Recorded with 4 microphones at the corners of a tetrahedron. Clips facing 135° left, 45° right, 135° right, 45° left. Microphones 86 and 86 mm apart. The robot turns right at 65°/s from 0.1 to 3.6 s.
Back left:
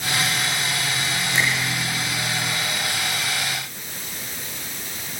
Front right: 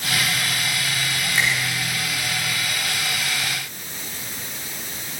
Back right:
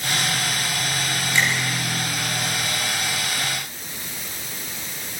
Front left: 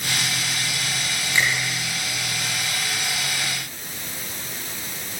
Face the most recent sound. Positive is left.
turn(degrees=-95)